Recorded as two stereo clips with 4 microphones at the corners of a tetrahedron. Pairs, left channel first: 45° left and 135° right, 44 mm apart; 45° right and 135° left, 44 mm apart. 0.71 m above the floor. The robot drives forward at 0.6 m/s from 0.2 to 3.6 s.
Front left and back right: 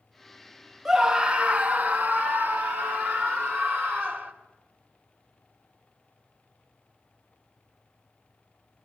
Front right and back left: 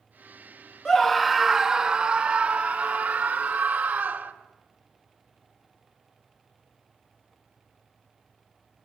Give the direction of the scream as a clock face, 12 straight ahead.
3 o'clock.